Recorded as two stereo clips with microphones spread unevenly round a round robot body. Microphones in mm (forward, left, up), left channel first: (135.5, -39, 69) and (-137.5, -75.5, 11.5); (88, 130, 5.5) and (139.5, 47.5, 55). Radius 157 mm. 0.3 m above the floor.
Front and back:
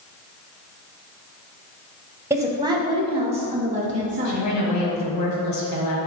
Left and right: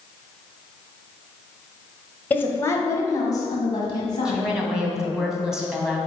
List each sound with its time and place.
2.3 s a woman speaking: 125° left, 1.1 m; by 4.5 s 130° left, 2 m
4.2 s a woman speaking: 40° left, 2 m